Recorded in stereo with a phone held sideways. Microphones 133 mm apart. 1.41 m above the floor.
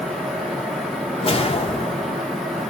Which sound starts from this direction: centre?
A fan, at 0.0 s.